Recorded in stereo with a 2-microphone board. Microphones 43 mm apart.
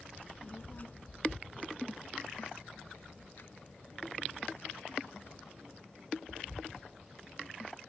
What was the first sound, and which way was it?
A child speaking, 40° left (ahead or behind).